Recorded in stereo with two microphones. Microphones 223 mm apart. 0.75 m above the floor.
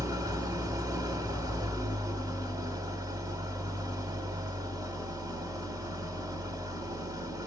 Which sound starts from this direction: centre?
An engine running, at 0.0 s.